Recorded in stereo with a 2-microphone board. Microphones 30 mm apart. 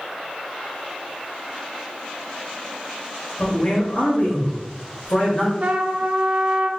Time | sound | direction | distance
3.4 | a man speaking | 45° left (ahead or behind) | 1.9 m
5.6 | a trumpet | 50° right (ahead or behind) | 0.5 m